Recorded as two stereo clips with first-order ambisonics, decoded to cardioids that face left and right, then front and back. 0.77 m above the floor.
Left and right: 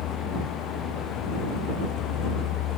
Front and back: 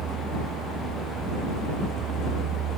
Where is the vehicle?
130° left.